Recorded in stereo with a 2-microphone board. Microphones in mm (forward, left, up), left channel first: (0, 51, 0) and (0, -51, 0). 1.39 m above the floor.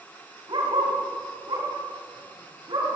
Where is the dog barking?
45° right (ahead or behind), 4 m.